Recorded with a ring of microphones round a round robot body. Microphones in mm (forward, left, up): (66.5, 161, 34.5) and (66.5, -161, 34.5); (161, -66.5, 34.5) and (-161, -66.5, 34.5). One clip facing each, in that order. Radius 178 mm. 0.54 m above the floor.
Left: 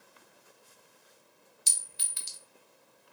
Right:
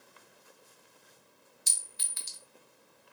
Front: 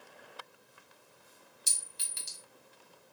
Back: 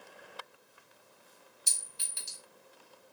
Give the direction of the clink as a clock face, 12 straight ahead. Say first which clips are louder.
Even, even; 10 o'clock.